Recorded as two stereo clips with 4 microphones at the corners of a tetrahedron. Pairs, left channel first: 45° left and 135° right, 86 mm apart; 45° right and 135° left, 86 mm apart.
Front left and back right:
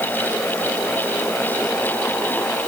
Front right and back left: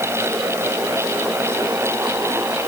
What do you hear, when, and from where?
Only background noise.